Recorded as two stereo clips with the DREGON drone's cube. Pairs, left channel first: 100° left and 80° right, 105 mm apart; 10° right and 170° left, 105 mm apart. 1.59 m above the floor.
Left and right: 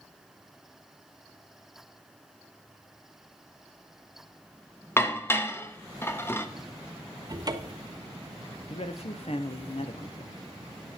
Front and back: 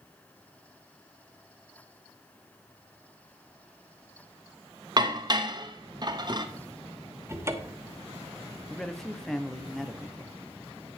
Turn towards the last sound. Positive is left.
turn(degrees=75)